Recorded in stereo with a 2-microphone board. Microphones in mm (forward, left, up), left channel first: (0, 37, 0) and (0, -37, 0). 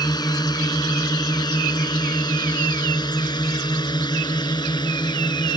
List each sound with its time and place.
0.0 s a drone: 65° left (ahead or behind); by 5.6 s 75° left (ahead or behind)